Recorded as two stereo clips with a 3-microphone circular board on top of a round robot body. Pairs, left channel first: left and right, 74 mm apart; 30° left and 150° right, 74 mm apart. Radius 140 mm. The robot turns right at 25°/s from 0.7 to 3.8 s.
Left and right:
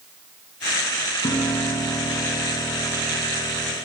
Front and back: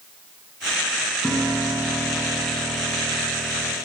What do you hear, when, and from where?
1.2 s a piano: 125° left, 6 m; by 3.8 s 175° right, 6 m